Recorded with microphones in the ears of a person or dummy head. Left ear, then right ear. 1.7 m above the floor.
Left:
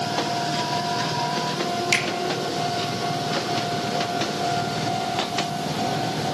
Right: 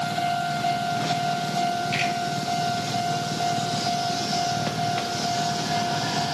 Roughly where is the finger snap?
Left.